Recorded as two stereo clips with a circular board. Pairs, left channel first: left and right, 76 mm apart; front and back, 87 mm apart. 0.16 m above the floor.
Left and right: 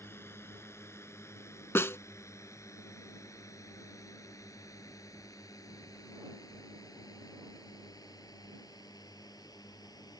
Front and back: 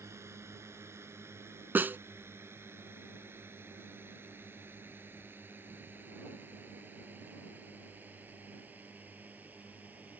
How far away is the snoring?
I don't hear snoring.